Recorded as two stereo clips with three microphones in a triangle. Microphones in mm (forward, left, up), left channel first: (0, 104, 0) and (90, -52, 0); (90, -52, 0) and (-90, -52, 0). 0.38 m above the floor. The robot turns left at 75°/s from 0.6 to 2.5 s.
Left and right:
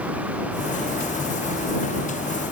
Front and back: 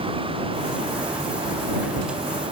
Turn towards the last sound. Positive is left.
No sound to turn to.